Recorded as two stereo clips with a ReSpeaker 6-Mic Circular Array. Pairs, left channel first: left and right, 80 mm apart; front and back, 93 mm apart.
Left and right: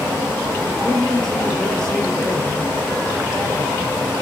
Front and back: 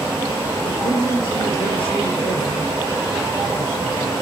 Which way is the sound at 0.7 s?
5° left.